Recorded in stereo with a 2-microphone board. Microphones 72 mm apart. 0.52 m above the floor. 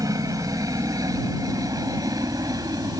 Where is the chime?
No chime in this recording.